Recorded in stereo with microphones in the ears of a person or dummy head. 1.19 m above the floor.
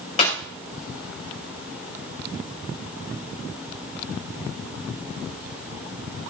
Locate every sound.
0.2 s a clap: 35° left (ahead or behind), 4.5 m